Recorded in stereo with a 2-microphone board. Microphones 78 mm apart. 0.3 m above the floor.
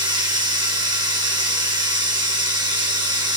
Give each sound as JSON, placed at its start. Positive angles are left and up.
{"t": 0.0, "sound": "running water", "side_deg": -70, "distance_m": 3.0}